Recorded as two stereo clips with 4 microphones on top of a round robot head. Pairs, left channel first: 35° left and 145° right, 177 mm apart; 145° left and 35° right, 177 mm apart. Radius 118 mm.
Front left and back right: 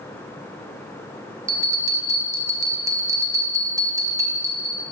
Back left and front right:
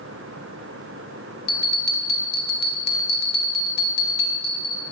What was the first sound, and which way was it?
A bell, 145° left.